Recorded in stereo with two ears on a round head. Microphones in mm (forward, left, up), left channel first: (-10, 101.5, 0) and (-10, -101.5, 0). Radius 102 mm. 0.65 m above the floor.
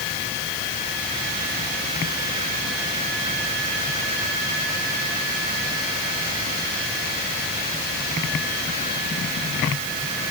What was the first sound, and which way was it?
Only background noise.